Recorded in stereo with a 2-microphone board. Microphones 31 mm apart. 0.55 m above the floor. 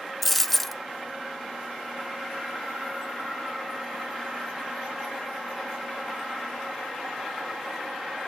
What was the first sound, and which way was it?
A dropped coin, 5° left (ahead or behind).